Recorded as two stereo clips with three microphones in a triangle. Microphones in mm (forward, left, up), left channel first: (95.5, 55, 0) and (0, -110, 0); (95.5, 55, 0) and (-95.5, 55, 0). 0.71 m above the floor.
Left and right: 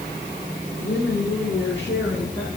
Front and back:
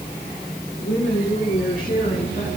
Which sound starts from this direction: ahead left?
A woman speaking, at 0.8 s.